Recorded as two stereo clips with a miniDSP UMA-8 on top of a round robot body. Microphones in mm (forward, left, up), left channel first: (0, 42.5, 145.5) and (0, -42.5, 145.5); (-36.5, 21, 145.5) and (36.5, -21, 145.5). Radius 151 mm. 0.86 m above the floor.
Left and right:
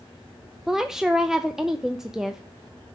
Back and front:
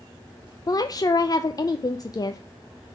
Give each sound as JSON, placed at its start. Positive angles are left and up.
{"t": 0.7, "sound": "a woman speaking", "azimuth_deg": -175, "distance_m": 0.6}